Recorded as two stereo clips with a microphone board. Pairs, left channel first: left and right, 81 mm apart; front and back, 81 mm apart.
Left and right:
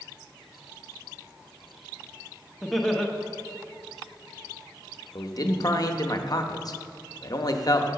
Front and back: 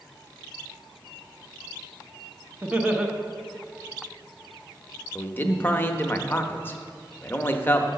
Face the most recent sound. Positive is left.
turn(degrees=60)